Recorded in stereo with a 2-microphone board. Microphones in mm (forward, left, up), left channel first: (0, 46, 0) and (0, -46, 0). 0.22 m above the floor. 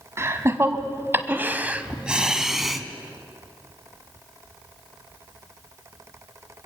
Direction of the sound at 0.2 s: 30° right (ahead or behind).